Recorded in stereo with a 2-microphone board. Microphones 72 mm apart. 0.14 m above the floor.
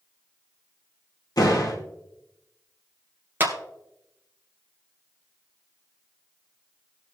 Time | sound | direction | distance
1.4 | a door slam | 60° left (ahead or behind) | 3 m
3.4 | a clap | 30° right (ahead or behind) | 1.9 m